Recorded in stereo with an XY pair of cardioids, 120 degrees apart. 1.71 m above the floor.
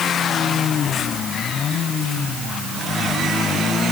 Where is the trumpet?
I don't hear a trumpet.